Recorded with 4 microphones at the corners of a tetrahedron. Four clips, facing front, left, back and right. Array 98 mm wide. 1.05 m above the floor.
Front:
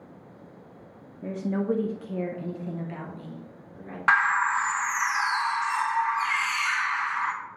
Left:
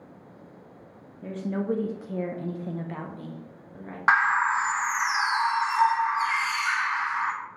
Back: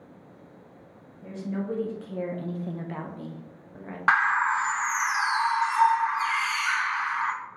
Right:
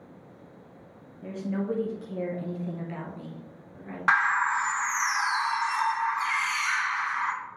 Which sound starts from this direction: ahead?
A woman speaking, at 1.2 s.